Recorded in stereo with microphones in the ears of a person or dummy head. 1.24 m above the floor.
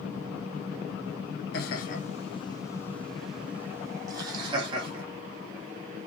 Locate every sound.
1.5 s laughter: 55° left (ahead or behind), 1.1 m; by 5.0 s 30° right (ahead or behind), 1.8 m